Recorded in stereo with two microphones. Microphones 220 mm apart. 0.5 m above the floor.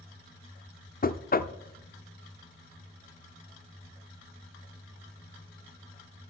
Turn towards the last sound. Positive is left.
turn(degrees=40)  # may be behind; listen again after turning